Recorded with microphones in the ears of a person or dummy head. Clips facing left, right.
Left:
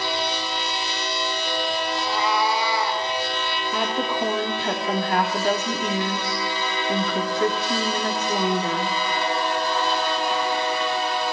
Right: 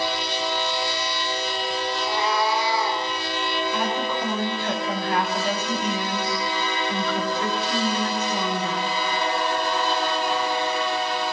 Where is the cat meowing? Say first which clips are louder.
Even; 60° left (ahead or behind), 6.5 m; by 3.0 s 55° left (ahead or behind), 6 m.